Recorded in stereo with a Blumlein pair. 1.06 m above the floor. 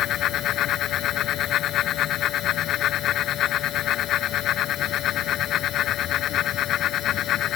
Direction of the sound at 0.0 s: 30° left.